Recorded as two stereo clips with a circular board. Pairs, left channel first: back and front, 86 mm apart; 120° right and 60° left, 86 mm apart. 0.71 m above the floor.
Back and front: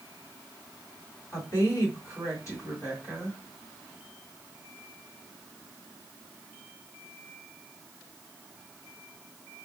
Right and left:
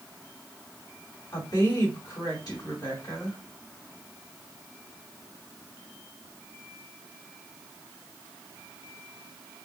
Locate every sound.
1.3 s a woman speaking: 135° right, 2.5 m